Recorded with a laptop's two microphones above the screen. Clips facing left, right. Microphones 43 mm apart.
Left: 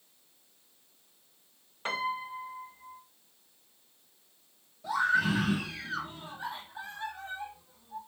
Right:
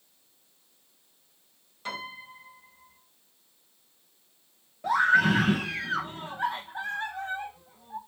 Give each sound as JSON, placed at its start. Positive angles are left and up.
{"t": 1.9, "sound": "a piano", "side_deg": 35, "distance_m": 4.5}
{"t": 4.8, "sound": "a scream", "side_deg": -50, "distance_m": 1.2}